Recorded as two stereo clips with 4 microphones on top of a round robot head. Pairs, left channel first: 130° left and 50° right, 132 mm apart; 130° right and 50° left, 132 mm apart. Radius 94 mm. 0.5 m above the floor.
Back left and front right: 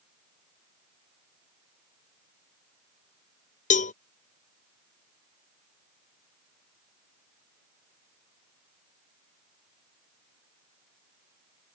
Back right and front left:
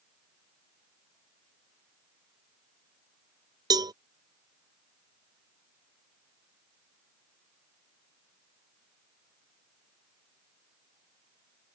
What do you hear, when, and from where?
3.7 s a cowbell: 110° left